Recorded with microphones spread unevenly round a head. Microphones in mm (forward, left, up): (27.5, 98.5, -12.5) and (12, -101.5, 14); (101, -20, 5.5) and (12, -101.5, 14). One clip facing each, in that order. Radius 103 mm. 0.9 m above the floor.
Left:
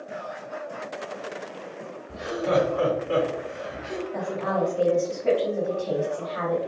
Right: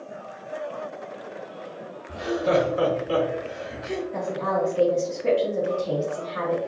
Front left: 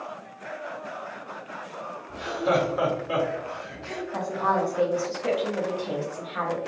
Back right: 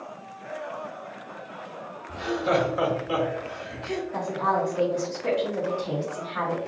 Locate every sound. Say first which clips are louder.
2.1 s laughter: right 2 dB, even; 30° right, 1.6 m; by 4.0 s 75° right, 1.5 m
4.1 s a woman speaking: even, front left 1 dB; 40° right, 1.5 m